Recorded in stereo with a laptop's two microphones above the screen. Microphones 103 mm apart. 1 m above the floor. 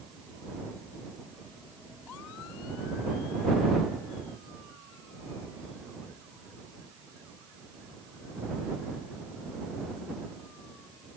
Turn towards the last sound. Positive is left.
No sound to turn to.